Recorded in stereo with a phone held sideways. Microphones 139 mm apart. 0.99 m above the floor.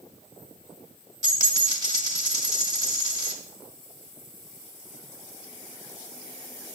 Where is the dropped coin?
25° right (ahead or behind), 1.5 m.